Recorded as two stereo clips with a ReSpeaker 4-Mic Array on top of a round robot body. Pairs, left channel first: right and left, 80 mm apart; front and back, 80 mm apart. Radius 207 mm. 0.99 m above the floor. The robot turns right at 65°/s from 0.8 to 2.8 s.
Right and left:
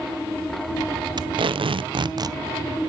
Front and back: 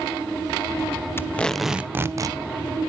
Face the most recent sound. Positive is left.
turn(degrees=165)